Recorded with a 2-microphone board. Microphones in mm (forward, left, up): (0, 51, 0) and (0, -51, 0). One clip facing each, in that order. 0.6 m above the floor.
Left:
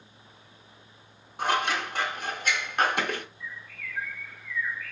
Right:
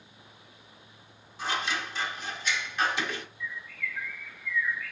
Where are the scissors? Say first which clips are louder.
Left 5 dB; 50° left (ahead or behind), 0.5 m.